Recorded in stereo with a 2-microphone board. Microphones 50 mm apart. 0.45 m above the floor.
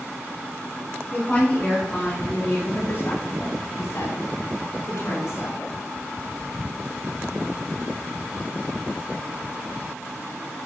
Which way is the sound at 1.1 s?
15° left (ahead or behind).